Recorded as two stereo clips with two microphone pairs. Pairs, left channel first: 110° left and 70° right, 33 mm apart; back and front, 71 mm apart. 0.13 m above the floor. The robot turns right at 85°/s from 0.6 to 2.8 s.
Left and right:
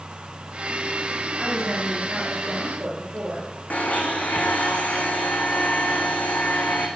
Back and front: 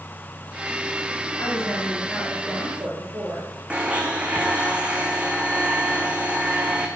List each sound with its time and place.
1.4 s a woman speaking: 150° right, 3 m; by 3.5 s 30° right, 3 m
3.7 s a blender: 70° left, 1.6 m